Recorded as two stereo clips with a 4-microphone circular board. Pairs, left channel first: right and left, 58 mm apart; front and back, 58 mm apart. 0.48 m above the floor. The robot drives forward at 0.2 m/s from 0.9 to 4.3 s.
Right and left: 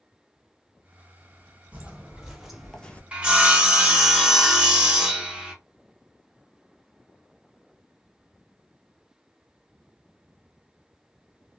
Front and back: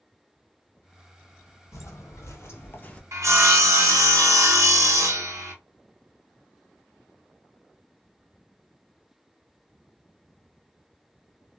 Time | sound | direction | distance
1.7 | footsteps | 25° left | 1.1 m
3.1 | sawing | 160° left | 0.7 m